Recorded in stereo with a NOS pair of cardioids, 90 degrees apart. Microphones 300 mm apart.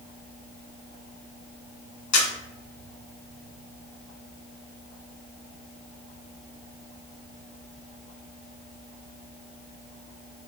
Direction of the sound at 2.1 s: 65° left.